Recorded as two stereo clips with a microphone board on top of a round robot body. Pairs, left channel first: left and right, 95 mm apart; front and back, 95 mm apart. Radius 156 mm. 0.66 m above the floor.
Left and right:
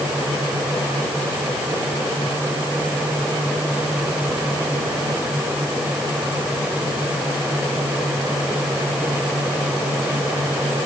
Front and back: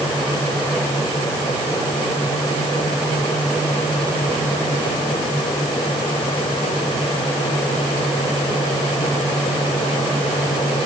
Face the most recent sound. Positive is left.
No sound to turn to.